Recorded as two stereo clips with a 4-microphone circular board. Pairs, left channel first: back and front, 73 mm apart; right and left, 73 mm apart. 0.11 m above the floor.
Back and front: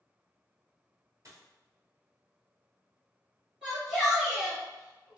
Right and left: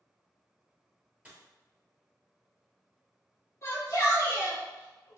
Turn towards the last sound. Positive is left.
turn(degrees=-85)